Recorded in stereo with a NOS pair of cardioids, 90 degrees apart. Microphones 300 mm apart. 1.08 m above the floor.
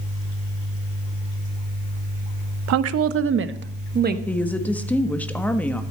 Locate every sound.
2.7 s a woman speaking: 65° right, 0.8 m; by 4.2 s 30° right, 1.5 m
4.3 s a woman speaking: 5° left, 1.5 m